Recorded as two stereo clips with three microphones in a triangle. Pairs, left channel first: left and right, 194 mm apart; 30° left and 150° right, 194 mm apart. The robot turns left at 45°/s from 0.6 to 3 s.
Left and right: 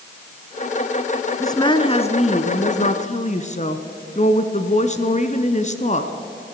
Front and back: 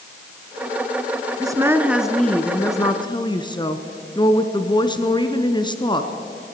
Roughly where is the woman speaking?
Behind left.